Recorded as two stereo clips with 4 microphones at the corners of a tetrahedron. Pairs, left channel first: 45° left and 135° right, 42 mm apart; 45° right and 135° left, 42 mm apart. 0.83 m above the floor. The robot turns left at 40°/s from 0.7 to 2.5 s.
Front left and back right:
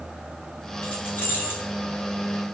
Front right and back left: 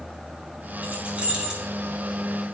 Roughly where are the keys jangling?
Left.